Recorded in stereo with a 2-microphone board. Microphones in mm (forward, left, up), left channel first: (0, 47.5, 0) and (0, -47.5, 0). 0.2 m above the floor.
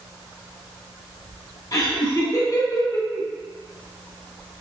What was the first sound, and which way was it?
Laughter, 40° left (ahead or behind).